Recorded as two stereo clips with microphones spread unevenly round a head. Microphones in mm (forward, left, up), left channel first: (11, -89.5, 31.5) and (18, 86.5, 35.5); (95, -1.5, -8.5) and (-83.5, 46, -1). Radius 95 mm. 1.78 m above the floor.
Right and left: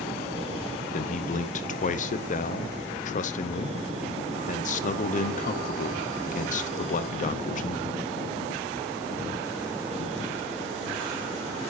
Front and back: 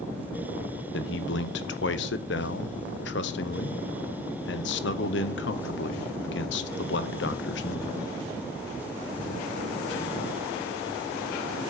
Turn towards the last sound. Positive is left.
turn(degrees=-45)